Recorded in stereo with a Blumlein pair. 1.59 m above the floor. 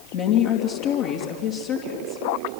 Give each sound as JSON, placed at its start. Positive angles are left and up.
{"t": 0.1, "sound": "a woman speaking", "azimuth_deg": 40, "distance_m": 2.5}